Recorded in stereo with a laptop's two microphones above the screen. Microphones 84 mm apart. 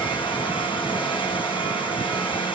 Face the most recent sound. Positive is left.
turn(degrees=70)  # may be behind; listen again after turning